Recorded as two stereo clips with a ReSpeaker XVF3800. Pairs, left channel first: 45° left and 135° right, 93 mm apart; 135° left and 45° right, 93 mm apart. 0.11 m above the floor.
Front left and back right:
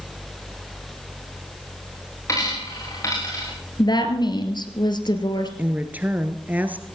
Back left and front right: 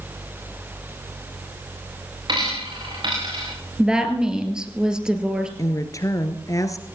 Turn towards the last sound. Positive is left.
turn(degrees=165)